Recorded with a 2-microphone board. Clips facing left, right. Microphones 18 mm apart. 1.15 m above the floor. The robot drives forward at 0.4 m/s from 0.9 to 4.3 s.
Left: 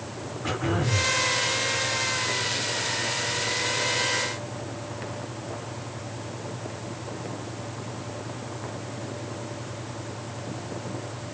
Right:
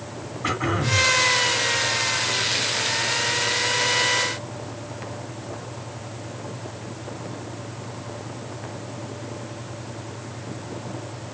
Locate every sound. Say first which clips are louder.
0.4 s throat clearing: right 3 dB; 80° right, 3 m